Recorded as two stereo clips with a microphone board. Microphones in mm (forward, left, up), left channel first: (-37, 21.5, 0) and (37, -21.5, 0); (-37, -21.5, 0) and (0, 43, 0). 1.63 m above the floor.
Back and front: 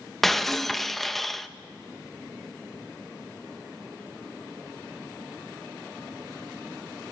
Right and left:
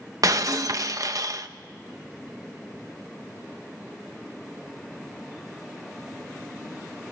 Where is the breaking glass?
60° left, 1.1 m.